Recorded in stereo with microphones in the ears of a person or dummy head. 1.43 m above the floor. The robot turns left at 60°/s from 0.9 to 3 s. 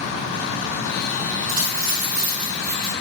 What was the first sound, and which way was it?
A dropped coin, 80° right.